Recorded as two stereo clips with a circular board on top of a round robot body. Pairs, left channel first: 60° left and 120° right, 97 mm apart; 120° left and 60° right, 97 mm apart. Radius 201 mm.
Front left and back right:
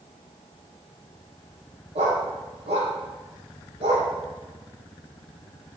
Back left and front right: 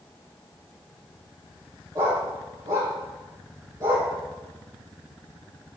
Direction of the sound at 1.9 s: 115° right.